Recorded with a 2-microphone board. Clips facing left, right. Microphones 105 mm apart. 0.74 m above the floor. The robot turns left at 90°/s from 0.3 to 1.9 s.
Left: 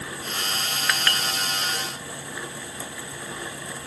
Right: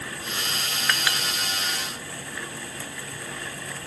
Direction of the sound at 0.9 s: 5° left (ahead or behind).